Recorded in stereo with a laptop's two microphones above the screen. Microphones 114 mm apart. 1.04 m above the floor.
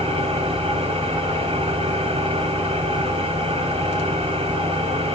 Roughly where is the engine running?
Right.